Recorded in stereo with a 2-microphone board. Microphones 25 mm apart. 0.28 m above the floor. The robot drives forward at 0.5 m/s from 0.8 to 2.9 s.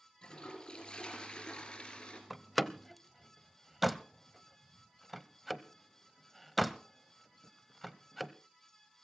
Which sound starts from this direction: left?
A toilet flushing, at 0.2 s.